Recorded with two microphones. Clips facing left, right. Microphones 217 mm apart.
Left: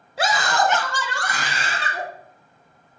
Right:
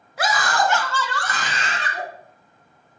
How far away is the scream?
About 1.1 m.